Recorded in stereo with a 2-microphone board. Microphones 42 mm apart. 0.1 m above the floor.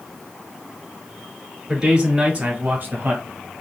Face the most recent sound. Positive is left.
turn(degrees=-40)  # may be behind; listen again after turning